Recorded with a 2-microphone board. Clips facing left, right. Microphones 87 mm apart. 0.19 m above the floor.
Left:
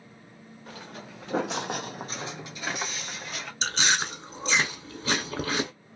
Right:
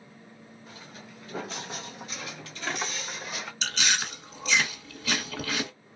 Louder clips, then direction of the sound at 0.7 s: Left 6 dB; 70° left (ahead or behind).